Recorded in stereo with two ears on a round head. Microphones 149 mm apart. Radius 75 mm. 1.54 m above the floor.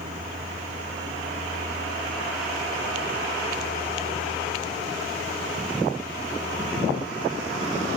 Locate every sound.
0.0 s a vehicle: 40° right (ahead or behind); by 8.0 s 55° right (ahead or behind)